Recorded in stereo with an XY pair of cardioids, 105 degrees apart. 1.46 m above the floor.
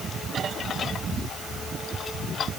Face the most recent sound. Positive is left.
No sound to turn to.